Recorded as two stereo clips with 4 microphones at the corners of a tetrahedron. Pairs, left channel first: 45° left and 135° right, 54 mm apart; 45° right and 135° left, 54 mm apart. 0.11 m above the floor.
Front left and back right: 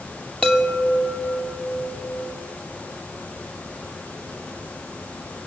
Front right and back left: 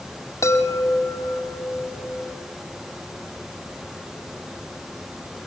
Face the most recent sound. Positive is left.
turn(degrees=-30)